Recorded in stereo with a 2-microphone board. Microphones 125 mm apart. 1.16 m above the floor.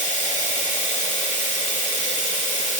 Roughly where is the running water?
Left.